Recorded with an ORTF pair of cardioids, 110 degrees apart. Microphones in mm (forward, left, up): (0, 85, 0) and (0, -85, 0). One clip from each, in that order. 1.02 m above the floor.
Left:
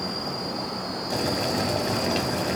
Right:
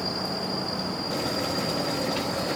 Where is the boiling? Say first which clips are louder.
Left 4 dB; 65° left, 2.5 m.